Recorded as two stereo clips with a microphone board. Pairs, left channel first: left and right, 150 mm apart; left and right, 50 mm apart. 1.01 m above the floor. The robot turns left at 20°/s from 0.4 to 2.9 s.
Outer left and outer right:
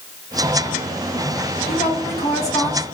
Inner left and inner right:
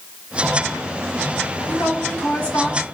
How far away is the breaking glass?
No breaking glass in this recording.